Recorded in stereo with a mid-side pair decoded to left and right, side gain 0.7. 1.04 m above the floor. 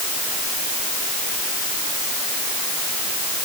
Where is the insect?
No insect in this recording.